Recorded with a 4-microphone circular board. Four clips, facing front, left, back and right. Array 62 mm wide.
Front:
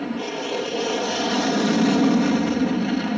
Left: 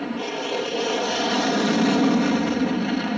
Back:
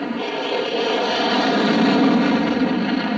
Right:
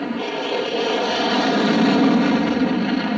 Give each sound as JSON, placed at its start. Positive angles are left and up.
{"t": 0.0, "sound": "an aircraft", "azimuth_deg": -145}